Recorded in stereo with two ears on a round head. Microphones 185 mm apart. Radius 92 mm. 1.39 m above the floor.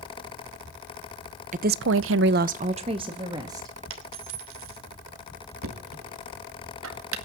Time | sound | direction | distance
1.5 | a woman speaking | 35° right (ahead or behind) | 0.8 m
3.9 | a dropped coin | 70° right (ahead or behind) | 3 m
5.6 | knocking | 75° right (ahead or behind) | 2 m